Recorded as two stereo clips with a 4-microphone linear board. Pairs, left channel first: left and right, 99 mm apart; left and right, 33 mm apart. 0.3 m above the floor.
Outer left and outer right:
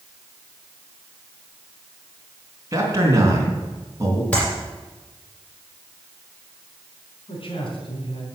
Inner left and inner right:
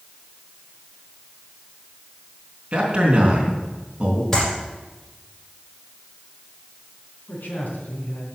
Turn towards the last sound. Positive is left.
turn(degrees=65)  # may be behind; listen again after turning